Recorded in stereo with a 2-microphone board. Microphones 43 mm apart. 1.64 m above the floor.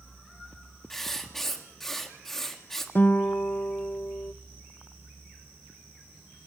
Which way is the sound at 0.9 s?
5° left (ahead or behind).